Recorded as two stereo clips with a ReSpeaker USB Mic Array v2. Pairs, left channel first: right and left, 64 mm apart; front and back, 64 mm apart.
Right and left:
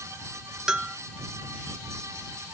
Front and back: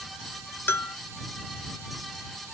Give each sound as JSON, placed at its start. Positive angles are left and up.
{"t": 0.7, "sound": "a bell", "azimuth_deg": 15}